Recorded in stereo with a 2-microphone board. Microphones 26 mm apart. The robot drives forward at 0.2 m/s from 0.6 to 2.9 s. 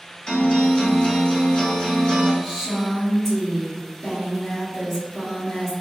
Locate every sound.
0.3 s a guitar: 30° left (ahead or behind), 1.9 m
2.4 s a woman speaking: 5° right (ahead or behind), 1.2 m